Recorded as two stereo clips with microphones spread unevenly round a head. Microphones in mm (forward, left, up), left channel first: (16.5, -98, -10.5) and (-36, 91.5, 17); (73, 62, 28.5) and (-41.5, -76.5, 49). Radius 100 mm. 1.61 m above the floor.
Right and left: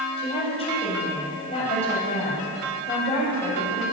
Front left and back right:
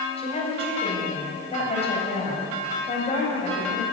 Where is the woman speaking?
10° right, 8 m.